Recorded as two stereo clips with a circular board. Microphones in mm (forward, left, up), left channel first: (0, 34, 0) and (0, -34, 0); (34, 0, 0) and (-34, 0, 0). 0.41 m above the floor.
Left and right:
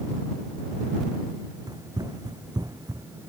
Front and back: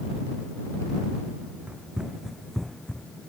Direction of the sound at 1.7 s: 105° right.